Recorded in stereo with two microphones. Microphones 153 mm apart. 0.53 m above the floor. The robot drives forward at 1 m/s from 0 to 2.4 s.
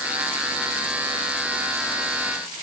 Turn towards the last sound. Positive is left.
No sound to turn to.